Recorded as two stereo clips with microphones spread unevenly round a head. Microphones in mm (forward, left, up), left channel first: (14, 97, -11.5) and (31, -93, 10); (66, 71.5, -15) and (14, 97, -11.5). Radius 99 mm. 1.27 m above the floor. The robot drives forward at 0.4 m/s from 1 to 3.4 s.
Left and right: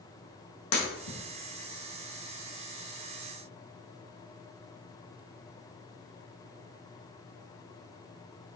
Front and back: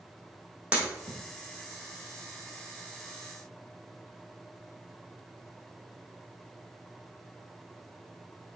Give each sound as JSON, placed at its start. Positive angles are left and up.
{"t": 0.7, "sound": "breaking glass", "azimuth_deg": 90, "distance_m": 4.5}